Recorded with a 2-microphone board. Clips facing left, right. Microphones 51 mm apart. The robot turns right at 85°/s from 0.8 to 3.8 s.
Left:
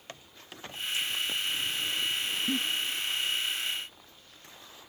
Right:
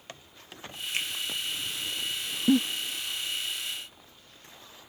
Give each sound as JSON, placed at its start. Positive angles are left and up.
{"t": 0.9, "sound": "a finger snap", "side_deg": -55, "distance_m": 2.5}
{"t": 2.5, "sound": "a giggle", "side_deg": -80, "distance_m": 0.7}